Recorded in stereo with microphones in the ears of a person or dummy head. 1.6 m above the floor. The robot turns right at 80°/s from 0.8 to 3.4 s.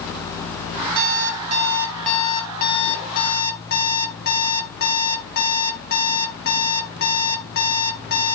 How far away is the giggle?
I don't hear a giggle.